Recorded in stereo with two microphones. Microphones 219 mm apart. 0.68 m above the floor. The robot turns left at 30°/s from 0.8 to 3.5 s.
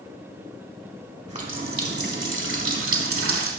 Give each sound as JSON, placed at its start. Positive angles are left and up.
{"t": 1.3, "sound": "a running tap", "azimuth_deg": -30, "distance_m": 1.3}